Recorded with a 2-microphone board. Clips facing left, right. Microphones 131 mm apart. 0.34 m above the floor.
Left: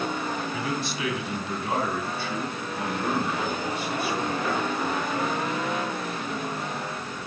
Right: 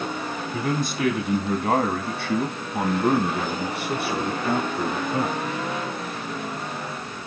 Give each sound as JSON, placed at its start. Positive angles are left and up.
{"t": 0.5, "sound": "a man speaking", "side_deg": -45, "distance_m": 2.5}